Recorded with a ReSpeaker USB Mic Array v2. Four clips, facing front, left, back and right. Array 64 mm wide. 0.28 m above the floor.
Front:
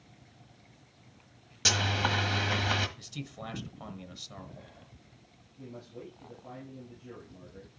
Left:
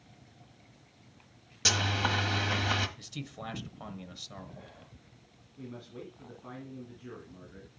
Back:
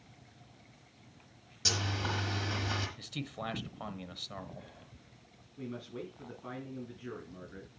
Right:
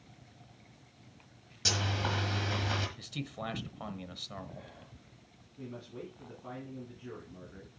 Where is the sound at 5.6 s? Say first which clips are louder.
Even, back 3 dB; 175° left, 4 m.